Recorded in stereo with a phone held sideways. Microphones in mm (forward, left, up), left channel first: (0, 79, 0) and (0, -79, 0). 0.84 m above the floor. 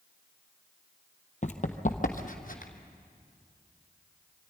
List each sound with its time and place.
1.4 s running footsteps: 50° left (ahead or behind), 1.2 m; by 2.7 s 60° left (ahead or behind), 1.9 m